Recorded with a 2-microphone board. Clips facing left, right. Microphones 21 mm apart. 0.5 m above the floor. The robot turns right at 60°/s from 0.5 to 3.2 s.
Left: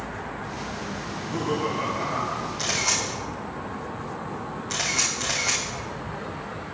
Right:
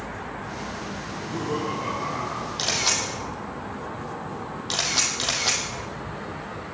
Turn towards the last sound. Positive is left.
turn(degrees=-80)